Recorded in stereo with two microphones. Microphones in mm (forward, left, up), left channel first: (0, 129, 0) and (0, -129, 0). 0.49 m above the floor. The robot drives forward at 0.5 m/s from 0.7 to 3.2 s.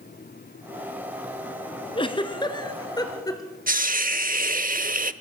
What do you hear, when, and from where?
1.9 s a giggle: 20° left (ahead or behind), 1.5 m; by 3.6 s 15° left (ahead or behind), 2 m
3.7 s a hiss: 30° right (ahead or behind), 0.7 m